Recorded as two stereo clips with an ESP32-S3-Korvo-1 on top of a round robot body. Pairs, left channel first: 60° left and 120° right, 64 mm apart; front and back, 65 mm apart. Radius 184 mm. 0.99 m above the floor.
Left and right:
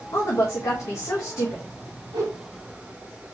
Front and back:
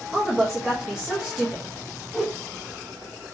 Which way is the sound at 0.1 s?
100° left.